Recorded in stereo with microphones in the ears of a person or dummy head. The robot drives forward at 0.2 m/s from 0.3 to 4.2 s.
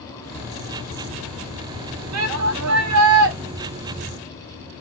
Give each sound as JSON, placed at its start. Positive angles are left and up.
{"t": 2.1, "sound": "a shout", "side_deg": -85, "distance_m": 0.8}